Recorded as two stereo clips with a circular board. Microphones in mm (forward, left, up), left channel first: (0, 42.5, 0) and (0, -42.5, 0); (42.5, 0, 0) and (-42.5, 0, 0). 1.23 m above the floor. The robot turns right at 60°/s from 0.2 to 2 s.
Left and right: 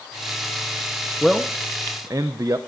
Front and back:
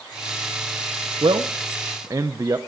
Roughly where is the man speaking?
Behind.